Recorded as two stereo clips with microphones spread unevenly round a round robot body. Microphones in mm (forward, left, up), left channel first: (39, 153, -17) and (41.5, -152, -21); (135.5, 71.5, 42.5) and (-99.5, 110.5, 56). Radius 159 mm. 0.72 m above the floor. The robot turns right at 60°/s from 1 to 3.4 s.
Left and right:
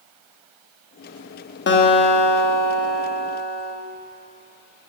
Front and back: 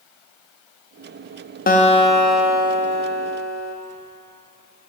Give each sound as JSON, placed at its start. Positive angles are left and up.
{"t": 1.7, "sound": "a guitar", "azimuth_deg": 40, "distance_m": 0.9}